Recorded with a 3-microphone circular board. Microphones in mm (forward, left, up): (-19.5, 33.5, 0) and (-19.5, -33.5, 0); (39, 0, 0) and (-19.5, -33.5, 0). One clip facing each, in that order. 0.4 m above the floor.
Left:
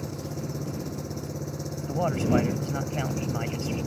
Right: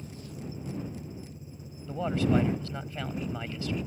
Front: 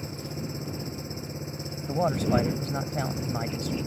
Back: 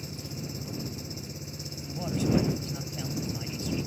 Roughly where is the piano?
I don't hear a piano.